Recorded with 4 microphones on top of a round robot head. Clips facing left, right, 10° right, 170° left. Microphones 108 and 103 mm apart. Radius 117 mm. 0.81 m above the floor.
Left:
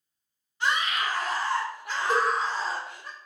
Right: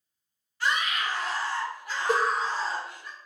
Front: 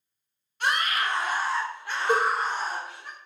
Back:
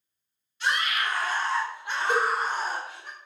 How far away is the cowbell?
About 0.5 m.